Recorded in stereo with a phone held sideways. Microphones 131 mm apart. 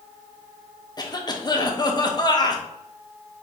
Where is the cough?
35° left (ahead or behind), 0.8 m.